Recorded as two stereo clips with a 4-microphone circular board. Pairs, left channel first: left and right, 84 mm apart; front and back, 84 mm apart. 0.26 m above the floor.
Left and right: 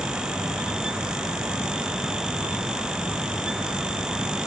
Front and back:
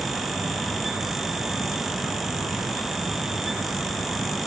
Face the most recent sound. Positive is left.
No sound to turn to.